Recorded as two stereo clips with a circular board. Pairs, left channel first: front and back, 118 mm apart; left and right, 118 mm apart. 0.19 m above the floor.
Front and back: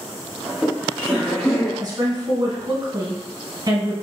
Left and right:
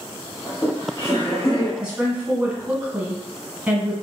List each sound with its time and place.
0.5 s laughter: 110° left, 1.2 m; by 1.7 s 65° left, 1.6 m
1.8 s a woman speaking: 165° right, 1.3 m